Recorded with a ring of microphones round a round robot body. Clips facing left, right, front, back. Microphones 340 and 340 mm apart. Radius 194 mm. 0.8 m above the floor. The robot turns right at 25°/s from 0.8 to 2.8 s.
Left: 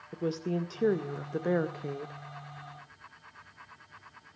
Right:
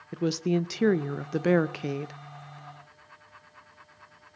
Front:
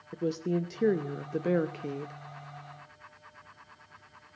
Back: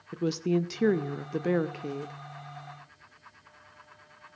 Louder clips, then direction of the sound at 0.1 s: Right 6 dB, back 3 dB; 120° right.